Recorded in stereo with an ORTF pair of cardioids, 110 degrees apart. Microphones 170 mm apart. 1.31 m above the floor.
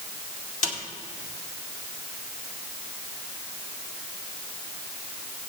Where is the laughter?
No laughter in this recording.